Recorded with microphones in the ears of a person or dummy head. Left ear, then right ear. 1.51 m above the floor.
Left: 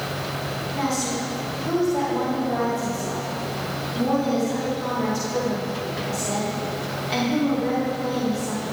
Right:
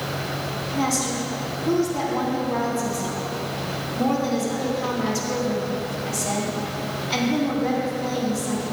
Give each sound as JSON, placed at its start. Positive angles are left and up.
{"t": 0.7, "sound": "a woman speaking", "side_deg": 5, "distance_m": 4.0}